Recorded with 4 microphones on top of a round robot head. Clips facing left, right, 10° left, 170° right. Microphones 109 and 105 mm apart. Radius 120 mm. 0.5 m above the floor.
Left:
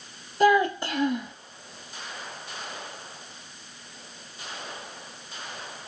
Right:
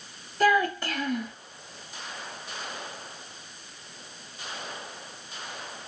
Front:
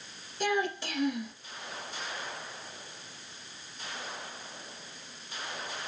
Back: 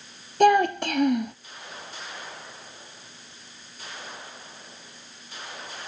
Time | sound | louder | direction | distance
0.4 | a child speaking | left 3 dB, back 12 dB | 170° left | 0.7 m